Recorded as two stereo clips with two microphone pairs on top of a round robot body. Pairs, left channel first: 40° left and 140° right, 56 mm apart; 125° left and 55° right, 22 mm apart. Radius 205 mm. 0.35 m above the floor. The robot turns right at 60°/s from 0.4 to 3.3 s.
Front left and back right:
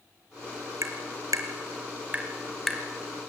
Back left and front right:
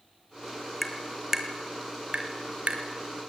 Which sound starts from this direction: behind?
Tapping, at 0.8 s.